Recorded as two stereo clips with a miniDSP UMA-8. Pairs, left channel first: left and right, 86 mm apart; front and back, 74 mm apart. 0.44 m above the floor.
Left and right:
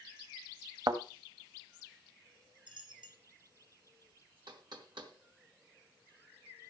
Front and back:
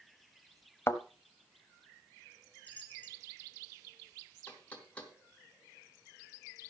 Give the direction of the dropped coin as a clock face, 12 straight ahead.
2 o'clock.